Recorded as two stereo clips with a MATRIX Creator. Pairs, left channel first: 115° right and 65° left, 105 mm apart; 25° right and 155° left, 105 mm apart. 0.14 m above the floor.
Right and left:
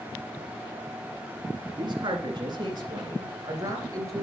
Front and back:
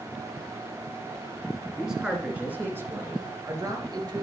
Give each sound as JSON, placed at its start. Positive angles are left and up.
{"t": 1.8, "sound": "a man speaking", "azimuth_deg": 70, "distance_m": 1.6}